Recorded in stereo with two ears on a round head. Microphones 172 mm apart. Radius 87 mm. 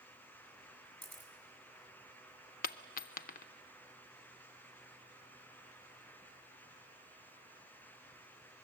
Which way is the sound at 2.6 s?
45° left (ahead or behind).